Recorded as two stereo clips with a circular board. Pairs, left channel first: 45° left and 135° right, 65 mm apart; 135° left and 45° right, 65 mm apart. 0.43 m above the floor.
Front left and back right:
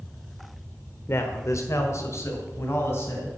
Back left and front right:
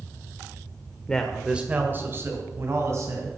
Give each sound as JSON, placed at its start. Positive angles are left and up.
{"t": 1.1, "sound": "a man speaking", "azimuth_deg": 65, "distance_m": 1.0}